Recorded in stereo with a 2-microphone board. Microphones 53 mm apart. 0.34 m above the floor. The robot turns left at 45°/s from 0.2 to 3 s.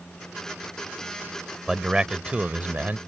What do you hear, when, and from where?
1.7 s a man speaking: 15° right; by 3.0 s 70° right